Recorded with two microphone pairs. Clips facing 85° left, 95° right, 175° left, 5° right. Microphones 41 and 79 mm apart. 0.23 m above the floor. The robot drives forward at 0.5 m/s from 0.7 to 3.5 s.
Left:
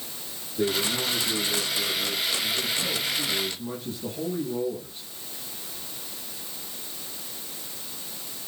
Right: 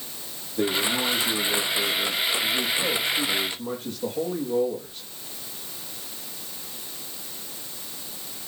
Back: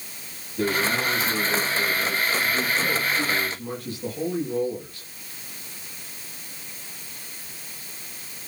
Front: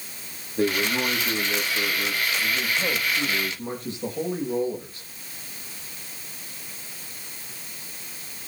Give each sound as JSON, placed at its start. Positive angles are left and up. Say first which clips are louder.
{"t": 0.6, "sound": "a man speaking", "louder": "right 2 dB, even", "azimuth_deg": -60, "distance_m": 9.5}